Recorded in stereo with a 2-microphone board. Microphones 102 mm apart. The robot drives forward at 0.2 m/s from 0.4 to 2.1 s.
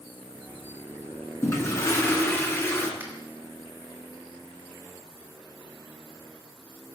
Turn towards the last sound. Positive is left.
turn(degrees=-20)  # may be behind; listen again after turning